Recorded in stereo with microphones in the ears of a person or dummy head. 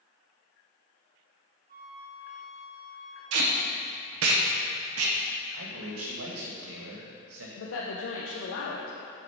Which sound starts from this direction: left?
A woman speaking, at 7.6 s.